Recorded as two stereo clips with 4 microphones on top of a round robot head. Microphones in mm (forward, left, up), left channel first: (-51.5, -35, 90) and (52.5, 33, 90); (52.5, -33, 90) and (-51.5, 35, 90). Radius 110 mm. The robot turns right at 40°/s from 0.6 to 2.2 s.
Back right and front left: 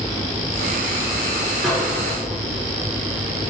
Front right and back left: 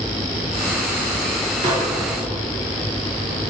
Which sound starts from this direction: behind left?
A microwave, at 1.6 s.